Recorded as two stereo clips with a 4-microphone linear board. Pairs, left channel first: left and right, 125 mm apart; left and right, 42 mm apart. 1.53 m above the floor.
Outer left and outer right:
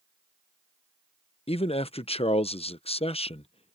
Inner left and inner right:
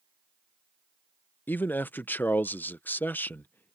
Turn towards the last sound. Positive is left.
turn(degrees=50)  # may be behind; listen again after turning